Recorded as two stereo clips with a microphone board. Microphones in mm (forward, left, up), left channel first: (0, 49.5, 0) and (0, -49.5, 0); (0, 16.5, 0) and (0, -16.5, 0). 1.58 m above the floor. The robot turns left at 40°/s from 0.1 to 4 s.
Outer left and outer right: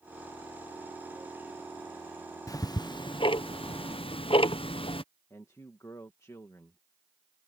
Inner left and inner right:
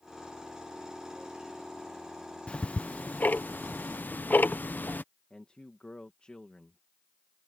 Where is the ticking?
35° left (ahead or behind); by 5.0 s 65° left (ahead or behind).